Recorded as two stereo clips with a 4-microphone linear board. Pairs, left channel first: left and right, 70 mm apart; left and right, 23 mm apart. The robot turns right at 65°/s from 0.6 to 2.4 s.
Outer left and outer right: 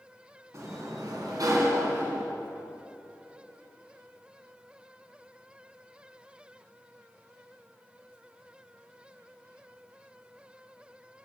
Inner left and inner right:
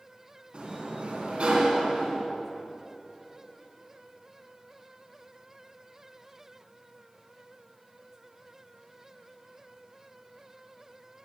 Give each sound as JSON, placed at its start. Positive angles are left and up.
{"t": 0.5, "sound": "a sliding door", "azimuth_deg": -125, "distance_m": 2.0}